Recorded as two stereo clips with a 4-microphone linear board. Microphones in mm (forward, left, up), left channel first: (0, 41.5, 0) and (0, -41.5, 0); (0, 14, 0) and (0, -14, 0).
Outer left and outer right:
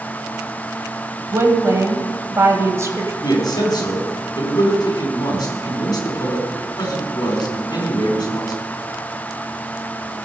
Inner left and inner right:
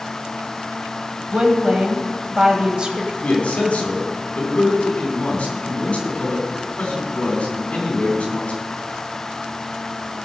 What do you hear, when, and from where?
1.3 s a woman speaking: 35° right (ahead or behind), 1.6 m
3.2 s a man speaking: 50° left (ahead or behind), 3 m